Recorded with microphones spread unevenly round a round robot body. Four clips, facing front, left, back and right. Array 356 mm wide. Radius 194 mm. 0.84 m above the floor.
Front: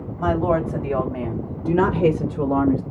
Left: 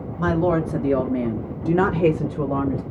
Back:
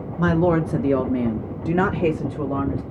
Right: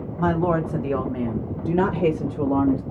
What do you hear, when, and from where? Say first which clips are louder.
0.2 s a woman speaking: left 1 dB, back 1 dB; 155° left, 1.3 m; by 2.8 s 35° left, 1.1 m